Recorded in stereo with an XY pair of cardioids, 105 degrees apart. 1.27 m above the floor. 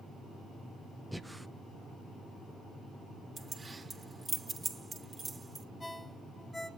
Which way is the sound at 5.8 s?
10° left.